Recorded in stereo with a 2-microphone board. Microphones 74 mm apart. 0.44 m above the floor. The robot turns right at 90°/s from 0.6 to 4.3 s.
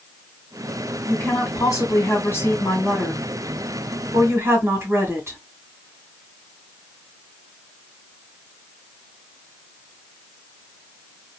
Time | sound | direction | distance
1.1 | a woman speaking | 20° left | 2 m